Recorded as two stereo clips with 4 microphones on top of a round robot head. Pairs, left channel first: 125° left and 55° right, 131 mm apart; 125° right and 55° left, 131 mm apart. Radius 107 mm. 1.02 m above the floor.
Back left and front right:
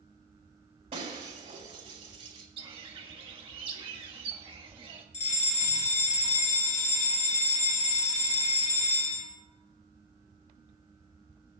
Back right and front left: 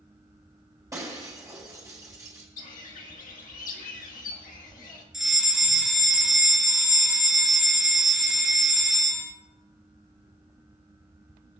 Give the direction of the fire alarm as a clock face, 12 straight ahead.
7 o'clock.